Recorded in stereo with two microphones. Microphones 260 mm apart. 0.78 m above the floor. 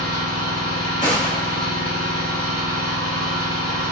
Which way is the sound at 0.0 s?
35° right (ahead or behind).